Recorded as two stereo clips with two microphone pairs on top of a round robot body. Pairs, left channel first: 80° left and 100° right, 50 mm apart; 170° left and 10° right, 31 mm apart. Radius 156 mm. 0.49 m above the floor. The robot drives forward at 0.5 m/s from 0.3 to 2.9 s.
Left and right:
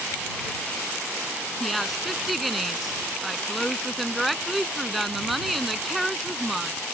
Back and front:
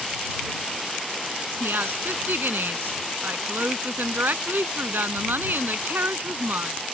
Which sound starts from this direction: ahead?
A woman speaking, at 1.6 s.